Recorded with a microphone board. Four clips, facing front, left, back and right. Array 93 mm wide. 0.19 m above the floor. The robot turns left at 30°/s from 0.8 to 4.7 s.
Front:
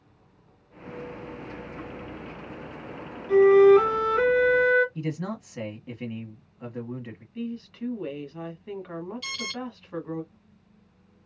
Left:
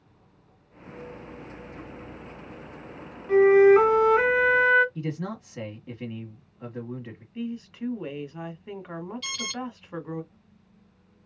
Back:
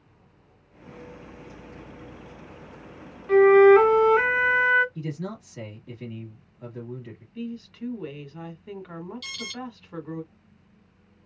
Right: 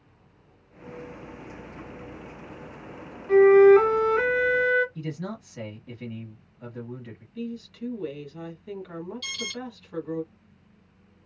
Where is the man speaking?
35° left, 1.2 m.